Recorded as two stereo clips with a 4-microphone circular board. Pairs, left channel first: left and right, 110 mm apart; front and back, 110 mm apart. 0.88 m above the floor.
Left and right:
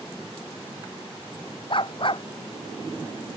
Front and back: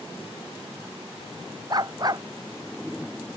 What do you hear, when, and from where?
1.7 s a dog barking: 130° left